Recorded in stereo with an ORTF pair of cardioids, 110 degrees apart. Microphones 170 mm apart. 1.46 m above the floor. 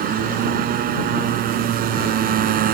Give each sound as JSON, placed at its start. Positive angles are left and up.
{"t": 0.0, "sound": "a motorcycle", "azimuth_deg": -60}